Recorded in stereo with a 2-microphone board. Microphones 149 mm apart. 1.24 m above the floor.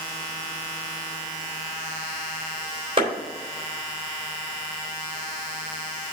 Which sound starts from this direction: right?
A clap, at 3.0 s.